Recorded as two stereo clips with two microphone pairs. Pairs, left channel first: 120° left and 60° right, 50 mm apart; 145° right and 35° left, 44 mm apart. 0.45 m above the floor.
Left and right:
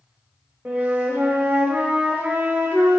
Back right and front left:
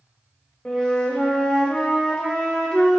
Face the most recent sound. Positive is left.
turn(degrees=-80)